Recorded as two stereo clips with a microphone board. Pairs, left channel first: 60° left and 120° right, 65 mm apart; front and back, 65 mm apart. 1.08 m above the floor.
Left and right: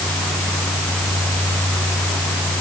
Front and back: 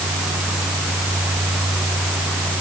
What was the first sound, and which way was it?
Only background noise.